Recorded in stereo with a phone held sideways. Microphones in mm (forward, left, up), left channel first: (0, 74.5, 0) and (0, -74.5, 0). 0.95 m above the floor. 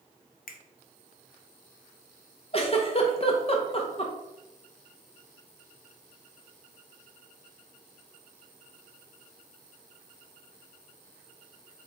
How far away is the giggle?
About 0.7 m.